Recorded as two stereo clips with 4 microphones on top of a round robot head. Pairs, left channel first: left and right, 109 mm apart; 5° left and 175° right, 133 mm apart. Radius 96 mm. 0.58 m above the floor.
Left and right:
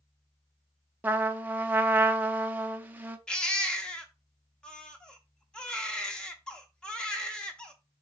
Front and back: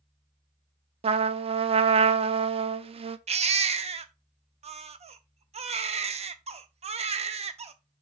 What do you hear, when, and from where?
1.0 s a trumpet: 160° right, 0.6 m
3.3 s a baby crying: 170° left, 0.9 m